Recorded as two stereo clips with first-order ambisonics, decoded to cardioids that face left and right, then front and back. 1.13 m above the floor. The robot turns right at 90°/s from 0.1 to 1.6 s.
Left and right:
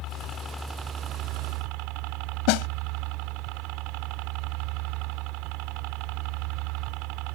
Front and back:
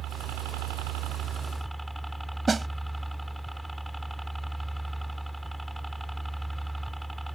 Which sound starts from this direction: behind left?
A helicopter, at 0.0 s.